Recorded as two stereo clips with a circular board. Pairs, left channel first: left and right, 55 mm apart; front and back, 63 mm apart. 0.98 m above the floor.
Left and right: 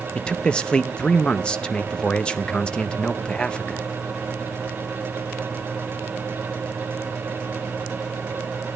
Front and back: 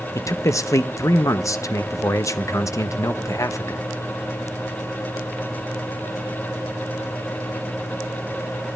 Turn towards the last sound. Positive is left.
turn(degrees=20)